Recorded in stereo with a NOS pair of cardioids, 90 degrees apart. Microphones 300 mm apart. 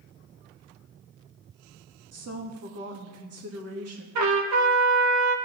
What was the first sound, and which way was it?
A woman speaking, 50° right.